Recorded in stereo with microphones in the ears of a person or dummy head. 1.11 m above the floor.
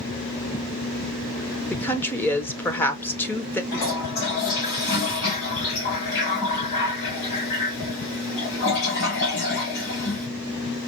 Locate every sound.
1.7 s a woman speaking: 10° left (ahead or behind), 0.7 m
3.7 s a toilet flushing: 60° left (ahead or behind), 4 m